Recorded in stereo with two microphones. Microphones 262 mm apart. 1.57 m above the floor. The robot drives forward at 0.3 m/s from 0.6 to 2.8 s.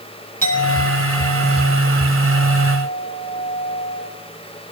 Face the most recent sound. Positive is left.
turn(degrees=-30)  # may be behind; listen again after turning